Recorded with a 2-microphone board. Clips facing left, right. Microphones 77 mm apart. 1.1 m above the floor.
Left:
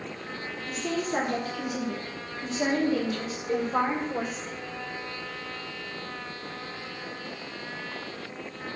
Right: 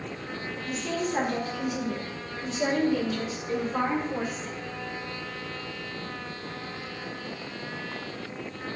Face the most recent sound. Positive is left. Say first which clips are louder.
# left 2 dB
turn(degrees=25)  # may be behind; listen again after turning